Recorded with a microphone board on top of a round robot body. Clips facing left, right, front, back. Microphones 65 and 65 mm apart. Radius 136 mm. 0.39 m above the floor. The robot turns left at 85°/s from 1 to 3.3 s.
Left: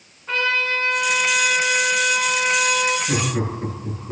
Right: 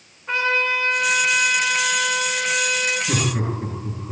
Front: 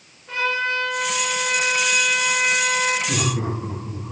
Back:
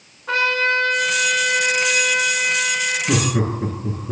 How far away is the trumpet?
About 7 m.